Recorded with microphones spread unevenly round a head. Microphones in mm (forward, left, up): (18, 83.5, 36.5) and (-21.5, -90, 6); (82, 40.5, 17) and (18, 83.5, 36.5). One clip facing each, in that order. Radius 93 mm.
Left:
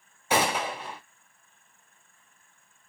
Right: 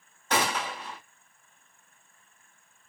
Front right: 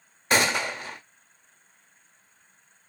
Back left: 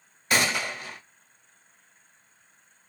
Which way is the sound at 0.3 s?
15° left.